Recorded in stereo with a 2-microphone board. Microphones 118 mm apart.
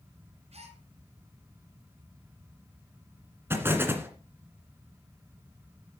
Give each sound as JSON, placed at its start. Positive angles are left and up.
{"t": 0.5, "sound": "a gasp", "side_deg": -60, "distance_m": 2.5}
{"t": 3.5, "sound": "an explosion", "side_deg": -20, "distance_m": 2.0}